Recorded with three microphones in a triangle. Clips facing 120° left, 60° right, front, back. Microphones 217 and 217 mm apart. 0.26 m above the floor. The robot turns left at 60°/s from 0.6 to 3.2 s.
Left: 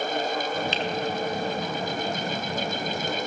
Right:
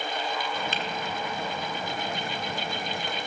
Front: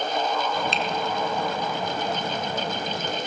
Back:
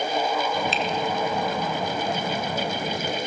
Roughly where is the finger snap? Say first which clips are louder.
Left 5 dB, back 1 dB; right.